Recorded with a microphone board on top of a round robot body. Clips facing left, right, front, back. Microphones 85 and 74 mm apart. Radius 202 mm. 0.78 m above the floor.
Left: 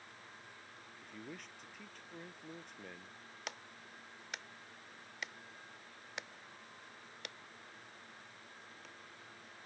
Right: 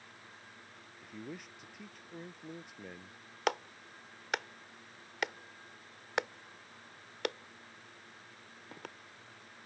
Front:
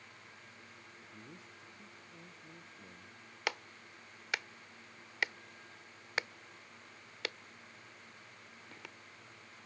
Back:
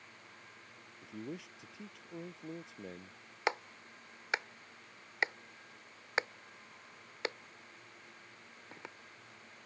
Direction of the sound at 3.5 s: 115° right.